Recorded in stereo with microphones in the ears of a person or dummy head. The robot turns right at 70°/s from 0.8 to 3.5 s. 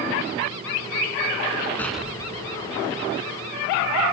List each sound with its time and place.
1.8 s an explosion: 170° left; by 3.5 s 75° right